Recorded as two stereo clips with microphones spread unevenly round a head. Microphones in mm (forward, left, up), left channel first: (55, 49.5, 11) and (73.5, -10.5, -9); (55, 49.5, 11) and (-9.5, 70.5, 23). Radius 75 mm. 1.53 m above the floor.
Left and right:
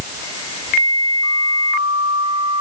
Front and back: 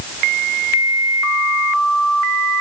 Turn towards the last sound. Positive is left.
No sound to turn to.